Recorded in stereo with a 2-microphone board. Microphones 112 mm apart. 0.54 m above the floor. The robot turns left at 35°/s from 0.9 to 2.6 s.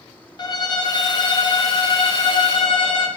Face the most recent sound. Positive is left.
turn(degrees=65)